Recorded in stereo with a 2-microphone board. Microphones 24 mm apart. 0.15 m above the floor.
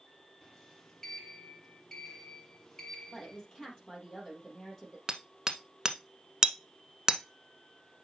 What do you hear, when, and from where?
0.4 s a sliding door: 25° left (ahead or behind), 1.8 m
3.1 s a woman speaking: 30° left (ahead or behind), 3.5 m
5.1 s hammering: 25° right (ahead or behind), 0.8 m